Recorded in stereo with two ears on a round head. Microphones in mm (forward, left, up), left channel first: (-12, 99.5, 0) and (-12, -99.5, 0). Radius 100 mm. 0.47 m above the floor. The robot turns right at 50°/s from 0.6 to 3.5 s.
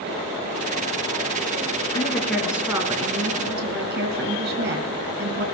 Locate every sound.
1.9 s a woman speaking: 155° left, 4 m; by 5.4 s 125° right, 4 m